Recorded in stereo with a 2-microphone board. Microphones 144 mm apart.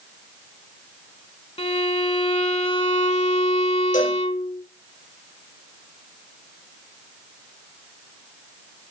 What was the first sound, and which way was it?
A violin, 45° left (ahead or behind).